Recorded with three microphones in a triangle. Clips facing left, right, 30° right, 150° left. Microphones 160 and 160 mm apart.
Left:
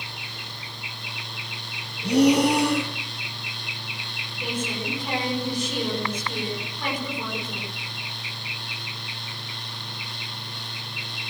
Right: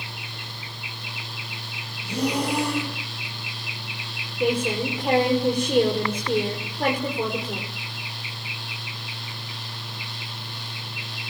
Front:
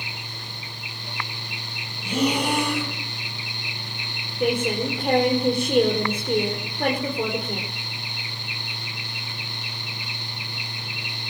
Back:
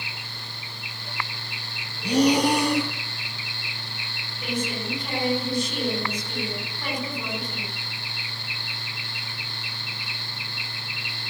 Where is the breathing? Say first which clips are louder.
Left 8 dB, back 4 dB; 100° left, 9 m.